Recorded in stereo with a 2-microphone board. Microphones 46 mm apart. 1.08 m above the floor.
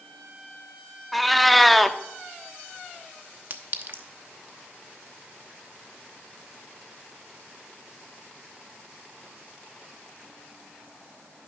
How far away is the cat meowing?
About 0.5 m.